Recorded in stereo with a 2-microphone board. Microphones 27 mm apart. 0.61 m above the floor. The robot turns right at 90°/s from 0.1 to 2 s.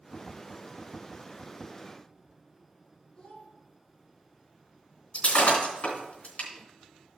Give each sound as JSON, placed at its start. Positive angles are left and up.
{"t": 3.1, "sound": "a child speaking", "side_deg": 25, "distance_m": 3.5}
{"t": 5.1, "sound": "breaking glass", "side_deg": 70, "distance_m": 3.0}